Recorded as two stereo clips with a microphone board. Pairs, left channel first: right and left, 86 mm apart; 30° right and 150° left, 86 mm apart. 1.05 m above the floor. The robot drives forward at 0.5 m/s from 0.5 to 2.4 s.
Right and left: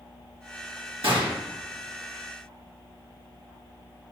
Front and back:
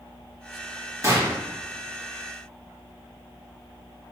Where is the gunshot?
95° left, 1.6 m; by 1.4 s 100° left, 1.7 m.